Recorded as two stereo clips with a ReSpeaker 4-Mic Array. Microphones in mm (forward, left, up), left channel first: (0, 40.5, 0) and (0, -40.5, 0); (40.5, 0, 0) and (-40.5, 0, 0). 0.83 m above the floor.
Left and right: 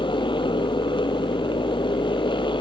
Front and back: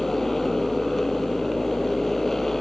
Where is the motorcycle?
85° left.